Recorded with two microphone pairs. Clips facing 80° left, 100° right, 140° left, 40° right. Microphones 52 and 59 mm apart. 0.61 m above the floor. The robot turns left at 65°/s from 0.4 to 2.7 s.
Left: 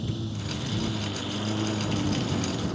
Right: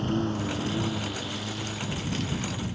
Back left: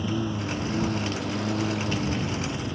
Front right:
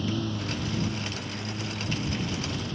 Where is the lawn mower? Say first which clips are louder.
Right 6 dB, back left 2 dB; 145° right; by 2.8 s 65° left.